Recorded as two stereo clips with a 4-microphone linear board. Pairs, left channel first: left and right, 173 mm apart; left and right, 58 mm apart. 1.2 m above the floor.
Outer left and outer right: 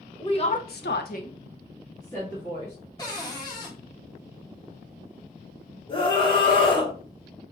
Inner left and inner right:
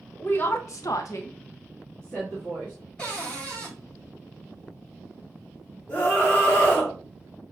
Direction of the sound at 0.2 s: 30° left (ahead or behind).